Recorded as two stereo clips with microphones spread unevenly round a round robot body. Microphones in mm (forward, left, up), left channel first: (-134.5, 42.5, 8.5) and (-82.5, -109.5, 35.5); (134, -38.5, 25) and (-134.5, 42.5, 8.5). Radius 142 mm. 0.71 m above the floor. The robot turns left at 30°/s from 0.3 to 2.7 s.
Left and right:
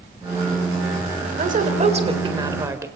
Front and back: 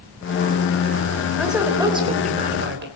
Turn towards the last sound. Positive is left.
turn(degrees=-145)